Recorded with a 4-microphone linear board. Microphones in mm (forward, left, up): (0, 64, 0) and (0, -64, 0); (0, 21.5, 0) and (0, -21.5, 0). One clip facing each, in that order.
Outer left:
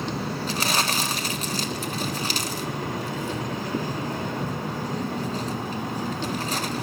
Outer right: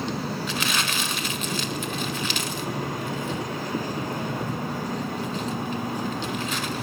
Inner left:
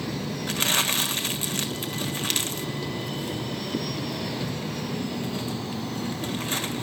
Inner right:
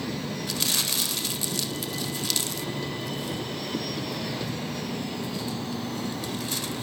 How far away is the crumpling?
About 1.4 m.